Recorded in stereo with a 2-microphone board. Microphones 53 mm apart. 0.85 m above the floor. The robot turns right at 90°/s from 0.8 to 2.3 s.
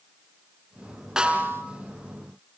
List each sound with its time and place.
1.2 s a snare drum: 170° right, 3.5 m; by 1.6 s 125° right, 3.5 m